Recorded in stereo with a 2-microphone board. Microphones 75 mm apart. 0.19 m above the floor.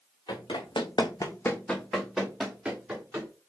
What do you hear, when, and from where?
0.3 s running footsteps: 70° left (ahead or behind), 1.0 m; by 3.3 s 20° right (ahead or behind), 2 m